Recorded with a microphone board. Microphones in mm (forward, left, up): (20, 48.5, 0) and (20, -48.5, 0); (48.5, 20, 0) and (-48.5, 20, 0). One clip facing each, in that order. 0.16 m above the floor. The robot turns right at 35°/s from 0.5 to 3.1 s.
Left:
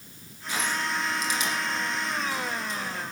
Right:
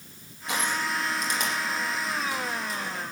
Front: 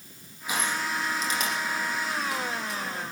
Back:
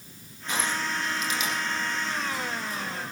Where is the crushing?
80° right, 7 m; by 2.8 s straight ahead, 7 m.